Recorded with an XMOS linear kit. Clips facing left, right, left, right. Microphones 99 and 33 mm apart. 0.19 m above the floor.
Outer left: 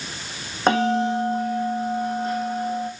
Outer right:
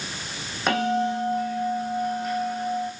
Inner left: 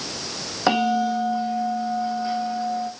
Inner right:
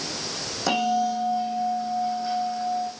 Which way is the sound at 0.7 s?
30° left (ahead or behind).